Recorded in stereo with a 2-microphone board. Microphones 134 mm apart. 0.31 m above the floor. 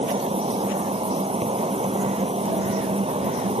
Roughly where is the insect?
Right.